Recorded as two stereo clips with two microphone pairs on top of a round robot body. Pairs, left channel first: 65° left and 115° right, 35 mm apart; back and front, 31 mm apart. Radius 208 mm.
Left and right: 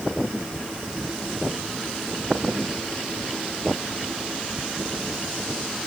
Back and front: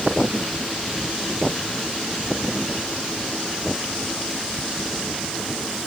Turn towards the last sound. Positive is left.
No sound to turn to.